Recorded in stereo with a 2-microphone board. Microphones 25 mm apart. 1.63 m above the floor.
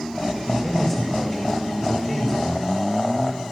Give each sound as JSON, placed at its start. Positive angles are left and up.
{"t": 0.5, "sound": "a man speaking", "side_deg": 15, "distance_m": 8.5}